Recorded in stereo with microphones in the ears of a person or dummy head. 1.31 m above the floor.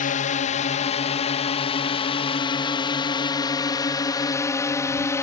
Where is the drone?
40° left (ahead or behind); by 5.2 s 15° left (ahead or behind).